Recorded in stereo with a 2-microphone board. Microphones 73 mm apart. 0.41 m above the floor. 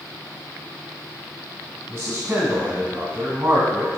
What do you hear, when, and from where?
1.9 s a man speaking: 30° right (ahead or behind), 2.5 m